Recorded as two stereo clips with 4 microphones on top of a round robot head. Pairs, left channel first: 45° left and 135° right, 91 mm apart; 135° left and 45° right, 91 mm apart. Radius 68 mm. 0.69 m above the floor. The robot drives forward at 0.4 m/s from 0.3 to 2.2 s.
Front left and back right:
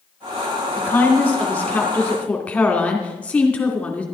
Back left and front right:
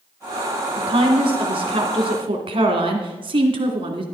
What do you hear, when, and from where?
0.8 s a woman speaking: 25° right, 3 m; by 4.0 s 35° right, 2.5 m